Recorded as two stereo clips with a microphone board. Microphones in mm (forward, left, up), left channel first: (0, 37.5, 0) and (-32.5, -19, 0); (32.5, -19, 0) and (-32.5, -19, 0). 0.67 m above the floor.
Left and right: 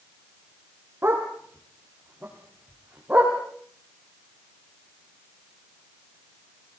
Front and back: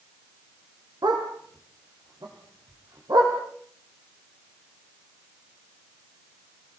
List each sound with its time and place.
1.0 s a dog barking: straight behind, 6.5 m; by 3.4 s 170° left, 8 m